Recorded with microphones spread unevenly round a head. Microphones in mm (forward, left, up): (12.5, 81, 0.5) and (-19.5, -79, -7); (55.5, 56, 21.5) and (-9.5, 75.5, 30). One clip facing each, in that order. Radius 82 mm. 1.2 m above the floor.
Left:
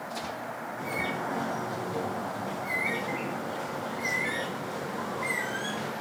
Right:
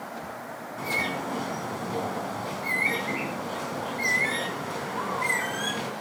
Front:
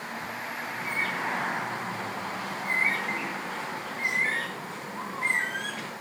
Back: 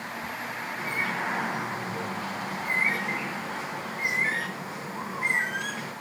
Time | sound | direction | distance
0.8 | a bird | 110° right | 3.5 m